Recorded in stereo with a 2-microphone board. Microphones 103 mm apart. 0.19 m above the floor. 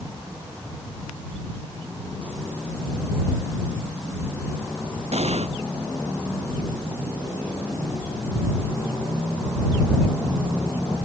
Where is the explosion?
85° right.